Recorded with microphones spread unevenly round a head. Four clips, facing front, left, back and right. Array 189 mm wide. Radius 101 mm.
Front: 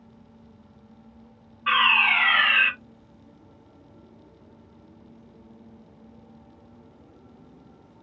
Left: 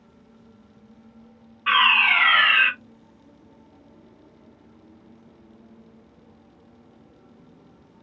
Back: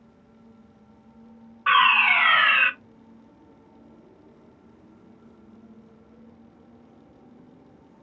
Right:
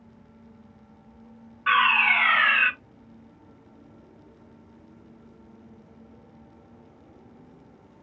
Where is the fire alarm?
Straight behind, 1.8 m.